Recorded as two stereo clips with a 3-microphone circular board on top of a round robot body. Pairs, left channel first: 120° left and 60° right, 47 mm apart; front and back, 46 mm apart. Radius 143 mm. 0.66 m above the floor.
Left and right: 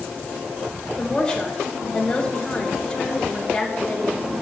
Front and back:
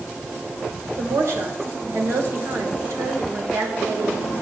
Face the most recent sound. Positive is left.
turn(degrees=-165)